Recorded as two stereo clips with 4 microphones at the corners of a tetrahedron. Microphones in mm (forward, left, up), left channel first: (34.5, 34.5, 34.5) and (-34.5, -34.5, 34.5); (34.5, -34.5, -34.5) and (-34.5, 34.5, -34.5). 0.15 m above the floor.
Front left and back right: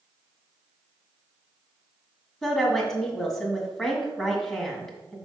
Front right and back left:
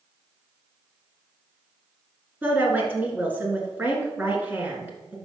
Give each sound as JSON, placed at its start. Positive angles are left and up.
{"t": 2.4, "sound": "a woman speaking", "azimuth_deg": 120, "distance_m": 1.6}